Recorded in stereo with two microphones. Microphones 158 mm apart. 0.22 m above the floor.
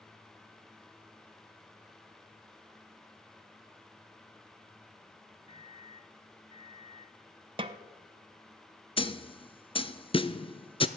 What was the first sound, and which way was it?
A microwave, 35° left (ahead or behind).